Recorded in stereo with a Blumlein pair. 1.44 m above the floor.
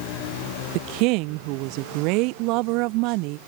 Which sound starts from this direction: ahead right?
A woman speaking, at 0.8 s.